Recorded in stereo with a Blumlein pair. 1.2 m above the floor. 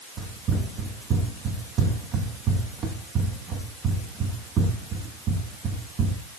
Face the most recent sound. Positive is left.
turn(degrees=-30)